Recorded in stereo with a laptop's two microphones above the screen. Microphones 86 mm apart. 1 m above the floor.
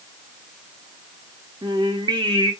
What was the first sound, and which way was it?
Singing, 60° right (ahead or behind).